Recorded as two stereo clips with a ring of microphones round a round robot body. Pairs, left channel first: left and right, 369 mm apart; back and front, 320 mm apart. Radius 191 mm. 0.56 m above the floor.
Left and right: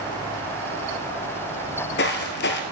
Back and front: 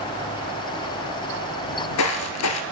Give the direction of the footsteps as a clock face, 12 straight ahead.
7 o'clock.